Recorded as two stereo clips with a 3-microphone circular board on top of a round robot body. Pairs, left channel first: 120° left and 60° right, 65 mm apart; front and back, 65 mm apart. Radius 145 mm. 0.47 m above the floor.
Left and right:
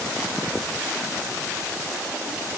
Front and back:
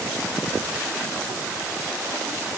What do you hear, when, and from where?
Only background noise.